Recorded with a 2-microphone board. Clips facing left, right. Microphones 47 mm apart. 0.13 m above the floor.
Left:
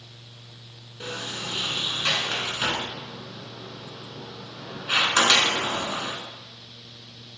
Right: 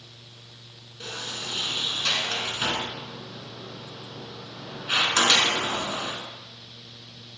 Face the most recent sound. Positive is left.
turn(degrees=20)  # may be behind; listen again after turning